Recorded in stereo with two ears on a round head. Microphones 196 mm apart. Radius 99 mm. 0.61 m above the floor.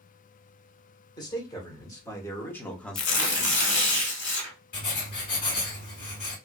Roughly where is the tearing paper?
Left.